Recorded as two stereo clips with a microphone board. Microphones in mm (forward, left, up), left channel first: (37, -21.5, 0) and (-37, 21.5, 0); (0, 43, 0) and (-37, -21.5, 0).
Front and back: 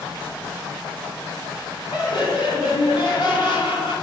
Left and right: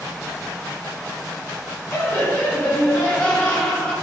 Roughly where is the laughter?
Ahead.